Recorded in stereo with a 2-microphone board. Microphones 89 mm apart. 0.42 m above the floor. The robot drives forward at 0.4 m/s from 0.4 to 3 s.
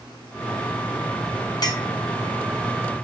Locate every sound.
1.6 s a clink: 45° left (ahead or behind), 0.6 m